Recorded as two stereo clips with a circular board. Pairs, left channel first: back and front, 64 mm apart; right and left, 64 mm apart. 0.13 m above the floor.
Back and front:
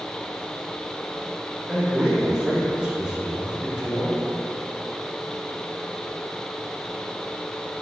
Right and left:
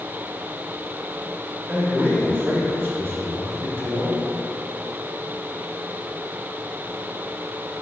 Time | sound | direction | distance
1.7 | a man speaking | 65° left | 1.5 m